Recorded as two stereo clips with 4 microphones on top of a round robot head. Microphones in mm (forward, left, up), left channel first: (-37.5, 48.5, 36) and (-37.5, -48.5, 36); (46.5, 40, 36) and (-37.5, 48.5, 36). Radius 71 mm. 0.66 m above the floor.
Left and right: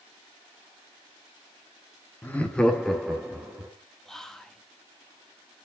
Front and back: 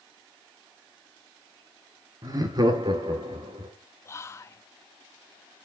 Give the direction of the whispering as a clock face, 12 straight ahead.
12 o'clock.